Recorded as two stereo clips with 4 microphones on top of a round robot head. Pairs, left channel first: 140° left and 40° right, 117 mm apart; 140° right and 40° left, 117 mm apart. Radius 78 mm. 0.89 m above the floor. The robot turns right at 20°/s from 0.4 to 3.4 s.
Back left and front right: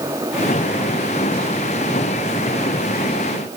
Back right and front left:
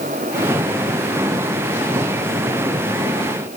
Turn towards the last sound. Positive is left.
No sound to turn to.